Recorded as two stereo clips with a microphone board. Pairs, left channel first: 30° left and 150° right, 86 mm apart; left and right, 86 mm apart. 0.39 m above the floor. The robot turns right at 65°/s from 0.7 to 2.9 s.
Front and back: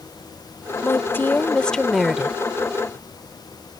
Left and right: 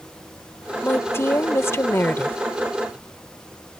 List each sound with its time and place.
0.8 s a woman speaking: 45° left; by 2.4 s 145° left